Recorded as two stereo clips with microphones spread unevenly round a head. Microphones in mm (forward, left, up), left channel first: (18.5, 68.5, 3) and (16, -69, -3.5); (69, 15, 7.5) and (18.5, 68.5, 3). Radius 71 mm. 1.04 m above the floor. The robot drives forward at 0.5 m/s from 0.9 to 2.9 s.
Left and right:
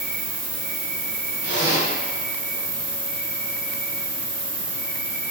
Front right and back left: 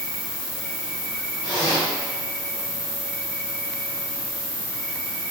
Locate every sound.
0.0 s an insect: 110° right, 1.8 m; by 5.3 s 135° right, 2.5 m
1.4 s a zipper: 90° right, 1.9 m; by 1.9 s 95° right, 1.9 m